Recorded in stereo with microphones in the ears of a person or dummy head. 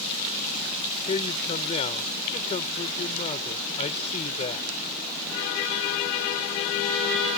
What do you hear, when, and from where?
1.1 s a man speaking: 45° left (ahead or behind)